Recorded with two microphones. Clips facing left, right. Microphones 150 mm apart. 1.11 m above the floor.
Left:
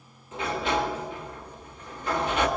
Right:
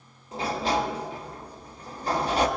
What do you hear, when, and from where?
0.3 s a sliding door: 35° right (ahead or behind), 1.4 m